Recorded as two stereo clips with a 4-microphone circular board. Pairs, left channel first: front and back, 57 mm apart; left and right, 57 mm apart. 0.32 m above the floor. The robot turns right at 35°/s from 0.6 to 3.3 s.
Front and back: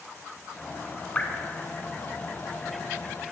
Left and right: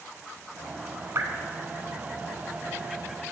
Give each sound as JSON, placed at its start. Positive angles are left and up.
{"t": 1.1, "sound": "dripping", "azimuth_deg": -65, "distance_m": 1.2}